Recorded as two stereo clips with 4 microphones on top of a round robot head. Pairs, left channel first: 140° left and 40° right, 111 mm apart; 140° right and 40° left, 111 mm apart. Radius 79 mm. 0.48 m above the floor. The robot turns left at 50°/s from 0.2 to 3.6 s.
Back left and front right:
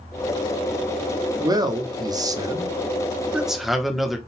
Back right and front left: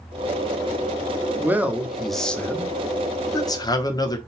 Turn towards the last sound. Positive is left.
turn(degrees=-130)